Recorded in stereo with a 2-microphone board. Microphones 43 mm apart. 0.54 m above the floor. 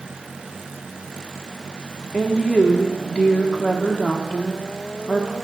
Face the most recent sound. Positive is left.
turn(degrees=25)  # may be behind; listen again after turning